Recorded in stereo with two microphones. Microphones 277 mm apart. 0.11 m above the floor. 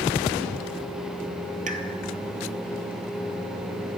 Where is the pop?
30° right (ahead or behind), 0.8 m.